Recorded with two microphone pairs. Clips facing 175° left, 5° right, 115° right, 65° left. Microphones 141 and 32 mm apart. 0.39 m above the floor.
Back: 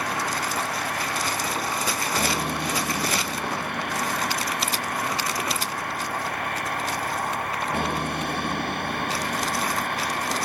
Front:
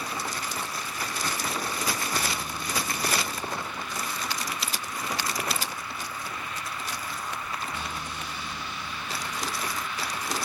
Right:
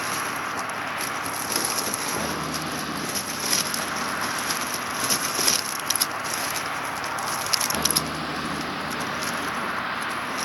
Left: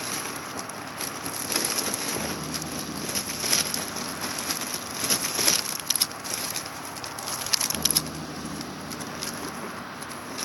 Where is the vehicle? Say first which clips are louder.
Back 6 dB, right 6 dB; 160° right; by 10.5 s 150° right.